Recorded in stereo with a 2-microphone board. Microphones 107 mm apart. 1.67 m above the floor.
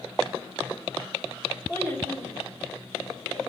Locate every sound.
1.7 s a child speaking: 25° left (ahead or behind), 1.9 m; by 3.4 s 20° left (ahead or behind), 3.5 m